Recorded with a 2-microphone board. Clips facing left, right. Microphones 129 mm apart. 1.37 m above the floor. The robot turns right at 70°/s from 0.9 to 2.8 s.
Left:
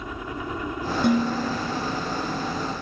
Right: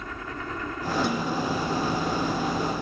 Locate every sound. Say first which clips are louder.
0.0 s a helicopter: left 3 dB; 165° left; by 2.8 s 65° right
1.0 s dishes clattering: left 5 dB; 105° left; by 1.8 s 160° left